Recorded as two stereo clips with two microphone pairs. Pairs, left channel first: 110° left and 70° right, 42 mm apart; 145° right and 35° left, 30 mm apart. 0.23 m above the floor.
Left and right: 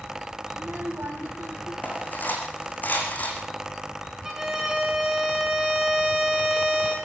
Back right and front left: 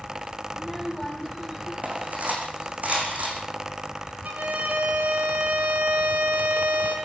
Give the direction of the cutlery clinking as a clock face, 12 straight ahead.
10 o'clock.